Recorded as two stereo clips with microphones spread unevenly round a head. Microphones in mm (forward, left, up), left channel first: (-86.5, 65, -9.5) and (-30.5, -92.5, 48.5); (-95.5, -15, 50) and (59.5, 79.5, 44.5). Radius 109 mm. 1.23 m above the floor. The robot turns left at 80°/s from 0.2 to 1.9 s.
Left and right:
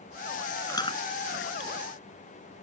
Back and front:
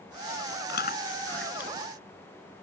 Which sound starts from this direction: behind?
Chewing, at 0.7 s.